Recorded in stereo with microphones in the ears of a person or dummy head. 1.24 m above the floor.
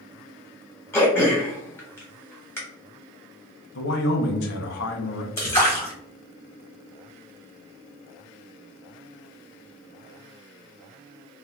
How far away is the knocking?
I don't hear knocking.